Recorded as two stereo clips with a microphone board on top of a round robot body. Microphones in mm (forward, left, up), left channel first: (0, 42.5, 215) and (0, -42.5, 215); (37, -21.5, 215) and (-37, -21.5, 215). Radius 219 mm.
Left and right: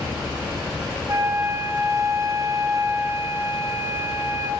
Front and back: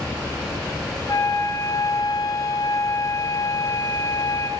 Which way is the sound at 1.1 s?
35° right.